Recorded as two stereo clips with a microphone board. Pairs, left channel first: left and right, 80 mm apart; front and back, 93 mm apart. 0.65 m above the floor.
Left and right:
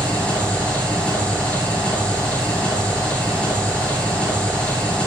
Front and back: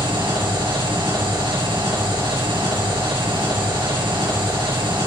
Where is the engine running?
165° left, 8 m.